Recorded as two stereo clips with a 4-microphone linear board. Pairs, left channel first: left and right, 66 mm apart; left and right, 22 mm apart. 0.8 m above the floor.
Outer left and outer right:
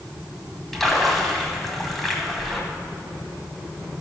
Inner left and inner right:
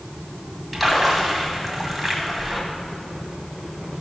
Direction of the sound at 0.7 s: 5° left (ahead or behind).